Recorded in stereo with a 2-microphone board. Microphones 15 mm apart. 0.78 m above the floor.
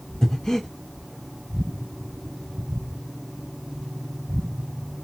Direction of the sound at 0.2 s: 55° left (ahead or behind).